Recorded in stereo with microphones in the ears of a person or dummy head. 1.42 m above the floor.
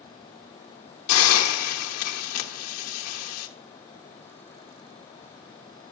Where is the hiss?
85° left, 1.2 m.